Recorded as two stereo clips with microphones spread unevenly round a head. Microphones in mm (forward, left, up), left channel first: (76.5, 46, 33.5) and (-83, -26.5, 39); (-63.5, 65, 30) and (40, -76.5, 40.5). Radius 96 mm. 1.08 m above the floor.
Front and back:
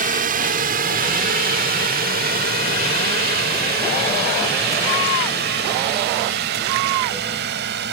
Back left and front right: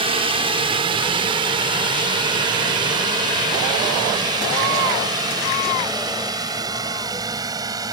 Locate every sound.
0.0 s a drone: 115° right; by 7.9 s 125° right